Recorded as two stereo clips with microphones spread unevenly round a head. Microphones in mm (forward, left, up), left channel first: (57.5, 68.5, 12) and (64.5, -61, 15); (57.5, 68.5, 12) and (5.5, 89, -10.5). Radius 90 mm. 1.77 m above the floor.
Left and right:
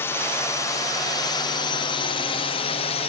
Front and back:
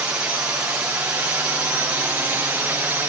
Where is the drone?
155° left; by 3.1 s 120° left.